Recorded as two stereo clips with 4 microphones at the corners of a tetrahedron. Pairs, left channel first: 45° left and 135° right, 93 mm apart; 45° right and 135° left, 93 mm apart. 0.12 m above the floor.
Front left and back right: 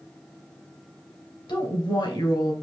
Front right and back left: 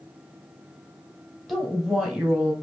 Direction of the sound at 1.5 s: 45° left.